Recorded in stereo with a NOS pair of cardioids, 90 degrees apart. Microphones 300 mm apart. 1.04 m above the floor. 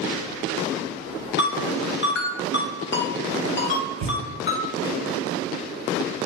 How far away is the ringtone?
About 1.0 m.